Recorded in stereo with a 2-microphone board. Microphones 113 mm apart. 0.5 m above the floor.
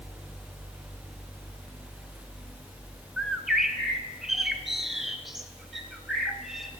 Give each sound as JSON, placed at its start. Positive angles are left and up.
{"t": 3.2, "sound": "a bird", "side_deg": -5, "distance_m": 0.8}